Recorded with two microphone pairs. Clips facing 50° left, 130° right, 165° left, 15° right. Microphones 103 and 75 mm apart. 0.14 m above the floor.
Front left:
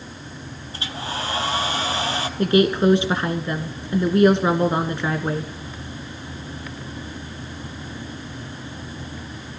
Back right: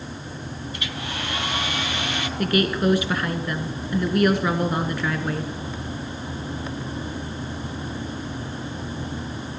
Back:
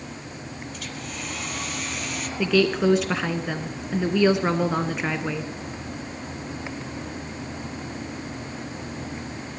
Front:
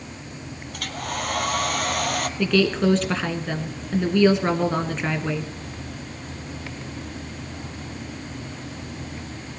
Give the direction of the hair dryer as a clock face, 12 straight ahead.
12 o'clock.